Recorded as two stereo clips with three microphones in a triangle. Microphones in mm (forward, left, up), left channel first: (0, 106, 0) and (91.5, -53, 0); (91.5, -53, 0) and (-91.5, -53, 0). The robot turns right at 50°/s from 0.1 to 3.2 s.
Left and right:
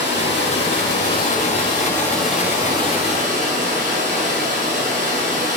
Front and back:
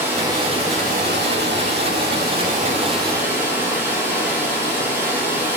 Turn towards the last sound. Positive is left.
turn(degrees=-105)